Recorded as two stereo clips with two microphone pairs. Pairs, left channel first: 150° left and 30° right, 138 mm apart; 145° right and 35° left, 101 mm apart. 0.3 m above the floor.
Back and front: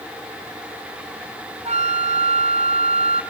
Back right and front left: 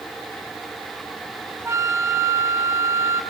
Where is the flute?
20° right, 1.2 m.